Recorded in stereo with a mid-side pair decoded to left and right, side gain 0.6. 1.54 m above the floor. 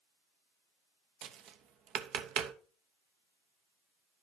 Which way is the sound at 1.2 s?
60° right.